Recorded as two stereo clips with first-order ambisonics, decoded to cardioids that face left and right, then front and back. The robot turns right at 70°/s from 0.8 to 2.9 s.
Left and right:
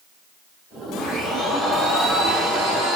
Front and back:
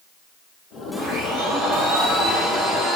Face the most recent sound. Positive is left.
turn(degrees=-85)